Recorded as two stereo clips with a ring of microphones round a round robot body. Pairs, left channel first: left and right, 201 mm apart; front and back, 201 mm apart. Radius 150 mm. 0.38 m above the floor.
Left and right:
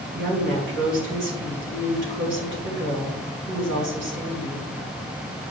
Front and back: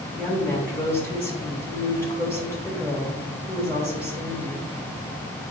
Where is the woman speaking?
100° right, 3 m.